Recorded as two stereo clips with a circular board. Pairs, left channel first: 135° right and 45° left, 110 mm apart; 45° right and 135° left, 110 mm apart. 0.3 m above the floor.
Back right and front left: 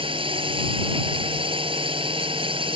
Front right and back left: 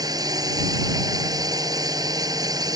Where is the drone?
80° left.